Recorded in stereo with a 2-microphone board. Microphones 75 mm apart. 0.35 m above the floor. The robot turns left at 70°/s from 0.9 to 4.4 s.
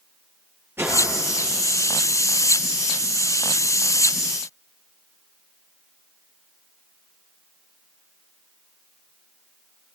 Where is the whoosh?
30° right (ahead or behind), 8 m; by 1.0 s 20° right (ahead or behind), 8 m.